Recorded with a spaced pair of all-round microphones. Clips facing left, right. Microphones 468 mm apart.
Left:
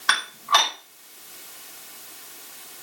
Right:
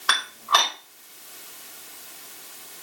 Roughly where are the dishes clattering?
Left.